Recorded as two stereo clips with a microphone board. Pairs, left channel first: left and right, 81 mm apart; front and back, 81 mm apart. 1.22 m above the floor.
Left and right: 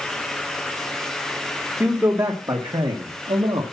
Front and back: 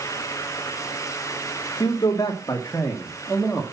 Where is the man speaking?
35° right, 2 m; by 3.6 s 85° right, 2 m.